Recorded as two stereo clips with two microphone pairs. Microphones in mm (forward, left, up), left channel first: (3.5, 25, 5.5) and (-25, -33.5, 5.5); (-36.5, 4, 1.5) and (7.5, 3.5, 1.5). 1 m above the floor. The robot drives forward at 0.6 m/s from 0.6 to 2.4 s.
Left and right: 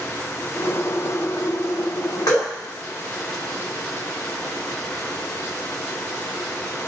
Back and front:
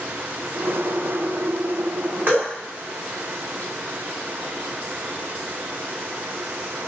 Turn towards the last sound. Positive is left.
turn(degrees=50)